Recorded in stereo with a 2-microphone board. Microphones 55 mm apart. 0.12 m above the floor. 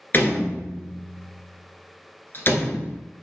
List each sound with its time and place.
0.1 s a door slam: 40° left (ahead or behind), 1.4 m